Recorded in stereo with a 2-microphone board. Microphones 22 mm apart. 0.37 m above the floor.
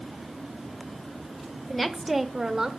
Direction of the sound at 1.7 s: 10° left (ahead or behind).